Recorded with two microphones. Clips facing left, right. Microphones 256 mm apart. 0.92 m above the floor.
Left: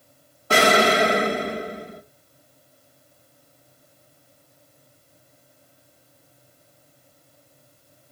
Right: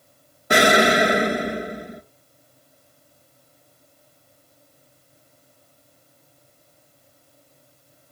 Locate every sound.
0.5 s an explosion: 15° right (ahead or behind), 0.5 m